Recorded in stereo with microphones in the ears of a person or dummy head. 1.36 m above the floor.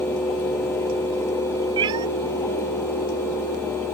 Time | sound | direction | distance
1.8 | a cat meowing | 30° right (ahead or behind) | ?